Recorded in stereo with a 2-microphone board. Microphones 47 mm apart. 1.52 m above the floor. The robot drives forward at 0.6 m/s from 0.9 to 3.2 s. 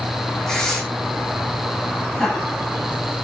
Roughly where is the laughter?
Centre.